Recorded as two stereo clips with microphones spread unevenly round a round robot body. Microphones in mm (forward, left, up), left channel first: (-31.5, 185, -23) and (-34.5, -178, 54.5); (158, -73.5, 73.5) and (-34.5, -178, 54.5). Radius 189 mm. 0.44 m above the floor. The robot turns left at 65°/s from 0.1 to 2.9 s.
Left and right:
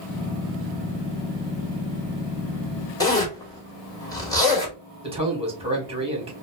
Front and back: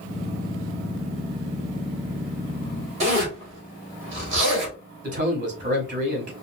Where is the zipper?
160° left, 2 m.